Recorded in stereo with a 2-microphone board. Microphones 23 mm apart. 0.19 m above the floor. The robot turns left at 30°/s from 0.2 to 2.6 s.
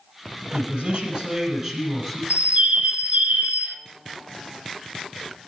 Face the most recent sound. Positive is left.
turn(degrees=-65)  # may be behind; listen again after turning